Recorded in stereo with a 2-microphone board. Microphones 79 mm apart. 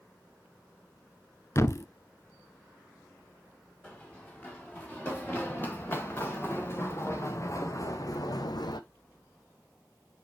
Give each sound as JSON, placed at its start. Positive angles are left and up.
{"t": 1.6, "sound": "a thud", "side_deg": 40, "distance_m": 0.6}
{"t": 3.8, "sound": "running footsteps", "side_deg": 20, "distance_m": 4.0}